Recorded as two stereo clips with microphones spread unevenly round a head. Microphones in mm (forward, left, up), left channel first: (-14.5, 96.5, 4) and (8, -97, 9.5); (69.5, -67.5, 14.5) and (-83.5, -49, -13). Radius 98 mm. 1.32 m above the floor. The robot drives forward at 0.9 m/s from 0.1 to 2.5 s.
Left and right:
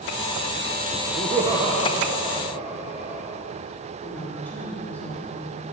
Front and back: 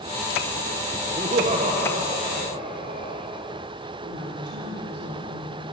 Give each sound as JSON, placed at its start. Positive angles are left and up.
{"t": 1.2, "sound": "laughter", "azimuth_deg": -140, "distance_m": 1.0}
{"t": 4.0, "sound": "a woman speaking", "azimuth_deg": 180, "distance_m": 3.0}